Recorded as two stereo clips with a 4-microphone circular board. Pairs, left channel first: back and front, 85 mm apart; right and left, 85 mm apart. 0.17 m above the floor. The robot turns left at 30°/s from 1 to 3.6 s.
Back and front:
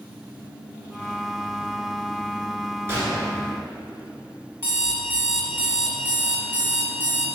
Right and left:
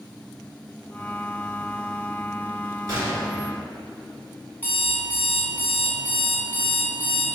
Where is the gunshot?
60° left, 1.3 m; by 3.2 s 45° left, 1.3 m.